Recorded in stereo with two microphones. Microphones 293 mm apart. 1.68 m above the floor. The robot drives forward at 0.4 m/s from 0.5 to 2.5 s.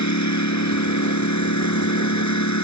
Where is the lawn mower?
70° left (ahead or behind); by 2.6 s 75° left (ahead or behind).